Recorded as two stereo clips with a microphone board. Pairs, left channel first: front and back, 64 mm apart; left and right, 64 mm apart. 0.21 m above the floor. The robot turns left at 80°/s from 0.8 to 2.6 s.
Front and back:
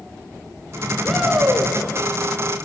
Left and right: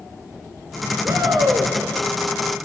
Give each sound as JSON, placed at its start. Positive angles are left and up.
{"t": 1.0, "sound": "a shout", "azimuth_deg": -80, "distance_m": 3.0}